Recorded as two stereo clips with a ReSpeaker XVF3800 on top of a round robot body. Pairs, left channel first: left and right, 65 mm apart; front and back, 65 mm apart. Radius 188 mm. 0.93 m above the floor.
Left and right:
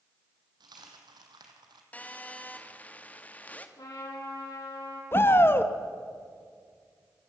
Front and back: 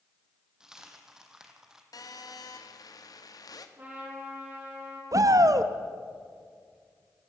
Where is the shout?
145° left, 1.2 m.